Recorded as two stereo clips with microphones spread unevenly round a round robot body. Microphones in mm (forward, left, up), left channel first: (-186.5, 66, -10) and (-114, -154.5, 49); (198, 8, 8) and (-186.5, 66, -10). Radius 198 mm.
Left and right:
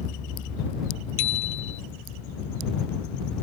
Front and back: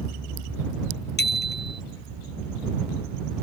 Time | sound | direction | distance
1.2 | a bicycle bell | 55° left | ?